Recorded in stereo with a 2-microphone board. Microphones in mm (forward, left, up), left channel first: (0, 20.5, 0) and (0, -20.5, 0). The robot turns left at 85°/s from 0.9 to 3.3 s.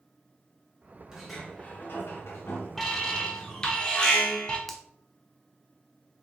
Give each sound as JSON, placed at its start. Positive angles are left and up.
{"t": 1.1, "sound": "a sliding door", "azimuth_deg": -165, "distance_m": 2.0}
{"t": 2.8, "sound": "an alarm", "side_deg": 10, "distance_m": 1.7}
{"t": 4.7, "sound": "a finger snap", "side_deg": 10, "distance_m": 0.9}